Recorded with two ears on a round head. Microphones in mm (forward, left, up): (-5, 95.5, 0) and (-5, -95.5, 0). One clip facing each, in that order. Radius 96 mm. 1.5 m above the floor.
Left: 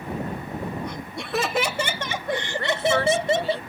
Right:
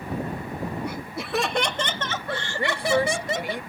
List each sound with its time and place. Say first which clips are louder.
0.8 s laughter: right 1 dB; 10° right (ahead or behind); by 3.6 s 30° left (ahead or behind)
2.6 s a woman speaking: right 1 dB; 15° right (ahead or behind)